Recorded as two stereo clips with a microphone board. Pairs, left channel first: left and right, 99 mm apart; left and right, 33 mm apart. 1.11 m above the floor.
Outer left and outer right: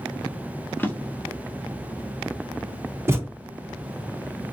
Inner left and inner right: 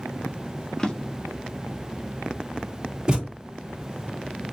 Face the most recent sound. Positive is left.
turn(degrees=-25)  # may be behind; listen again after turning